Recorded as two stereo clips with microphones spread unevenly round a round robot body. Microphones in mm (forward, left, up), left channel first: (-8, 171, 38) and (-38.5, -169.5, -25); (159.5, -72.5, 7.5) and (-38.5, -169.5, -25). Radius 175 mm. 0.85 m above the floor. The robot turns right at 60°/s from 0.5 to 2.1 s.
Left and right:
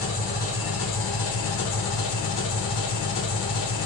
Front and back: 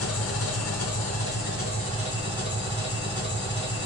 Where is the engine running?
20° left, 1.4 m; by 3.9 s 115° left, 1.4 m.